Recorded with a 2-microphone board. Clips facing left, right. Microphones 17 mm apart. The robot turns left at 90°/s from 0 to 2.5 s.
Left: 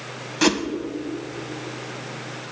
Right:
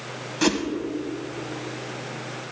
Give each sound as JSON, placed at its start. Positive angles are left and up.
{"t": 0.4, "sound": "a whoosh", "side_deg": 15, "distance_m": 0.8}